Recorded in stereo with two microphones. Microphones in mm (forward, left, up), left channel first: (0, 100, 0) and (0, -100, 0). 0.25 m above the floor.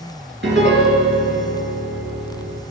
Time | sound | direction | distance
0.4 | a piano | 65° right (ahead or behind) | 4 m